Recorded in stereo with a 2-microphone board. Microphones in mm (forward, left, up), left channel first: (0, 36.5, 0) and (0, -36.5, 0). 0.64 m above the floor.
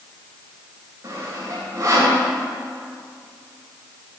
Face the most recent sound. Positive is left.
turn(degrees=-45)  # may be behind; listen again after turning